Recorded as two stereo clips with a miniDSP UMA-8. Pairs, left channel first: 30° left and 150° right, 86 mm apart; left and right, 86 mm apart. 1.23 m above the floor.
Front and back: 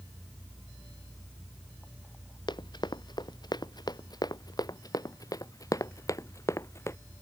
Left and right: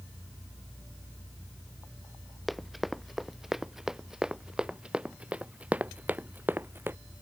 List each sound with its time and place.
2.5 s running footsteps: straight ahead; by 7.0 s 25° right